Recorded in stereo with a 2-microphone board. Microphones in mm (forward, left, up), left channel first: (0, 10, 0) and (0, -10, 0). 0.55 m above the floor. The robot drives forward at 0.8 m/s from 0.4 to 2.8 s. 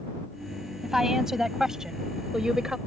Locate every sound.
0.8 s a woman speaking: 20° right (ahead or behind); by 2.8 s 35° right (ahead or behind)